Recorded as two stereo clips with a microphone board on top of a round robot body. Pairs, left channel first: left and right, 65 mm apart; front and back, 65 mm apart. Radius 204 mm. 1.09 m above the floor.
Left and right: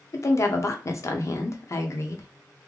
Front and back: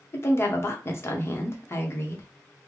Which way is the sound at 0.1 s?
50° left.